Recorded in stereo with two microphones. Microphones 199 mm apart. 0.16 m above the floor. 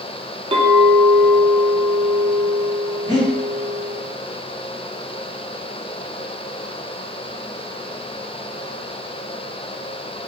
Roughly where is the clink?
Right.